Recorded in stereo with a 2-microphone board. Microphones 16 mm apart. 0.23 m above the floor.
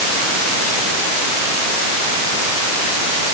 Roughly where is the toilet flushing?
I don't hear a toilet flushing.